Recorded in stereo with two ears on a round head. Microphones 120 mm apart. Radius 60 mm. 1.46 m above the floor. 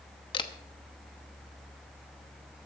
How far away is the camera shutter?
About 1.0 m.